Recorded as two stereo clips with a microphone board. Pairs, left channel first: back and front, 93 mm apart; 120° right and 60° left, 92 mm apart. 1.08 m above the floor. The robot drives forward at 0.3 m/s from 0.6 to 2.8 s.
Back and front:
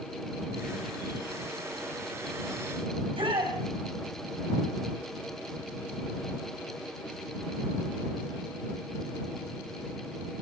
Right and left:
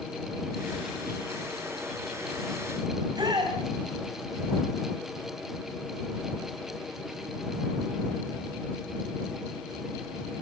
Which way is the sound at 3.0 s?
20° left.